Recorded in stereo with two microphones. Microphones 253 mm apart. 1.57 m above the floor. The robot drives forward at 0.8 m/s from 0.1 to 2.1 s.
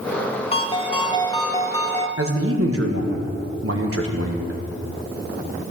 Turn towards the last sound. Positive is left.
turn(degrees=-60)  # may be behind; listen again after turning